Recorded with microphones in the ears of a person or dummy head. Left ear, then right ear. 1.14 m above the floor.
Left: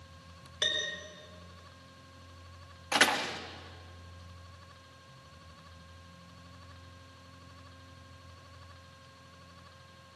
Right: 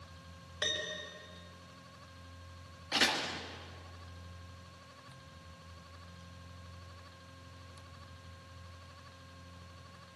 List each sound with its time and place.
0.6 s a piano: 15° left (ahead or behind), 5.5 m
2.9 s a door slam: 35° left (ahead or behind), 1.4 m